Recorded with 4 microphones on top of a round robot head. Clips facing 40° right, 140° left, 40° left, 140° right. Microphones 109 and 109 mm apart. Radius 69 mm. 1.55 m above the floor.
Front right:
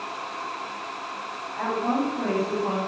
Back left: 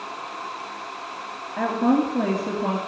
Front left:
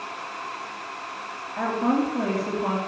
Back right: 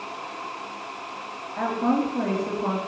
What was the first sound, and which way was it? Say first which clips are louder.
A woman speaking: back left 5 dB, even; 135° left.